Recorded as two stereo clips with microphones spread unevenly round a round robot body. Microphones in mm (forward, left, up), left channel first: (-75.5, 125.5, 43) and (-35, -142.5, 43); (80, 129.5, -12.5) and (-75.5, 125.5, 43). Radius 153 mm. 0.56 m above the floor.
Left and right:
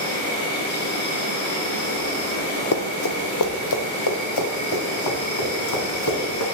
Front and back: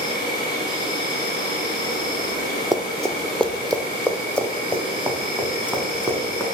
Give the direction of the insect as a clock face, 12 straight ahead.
11 o'clock.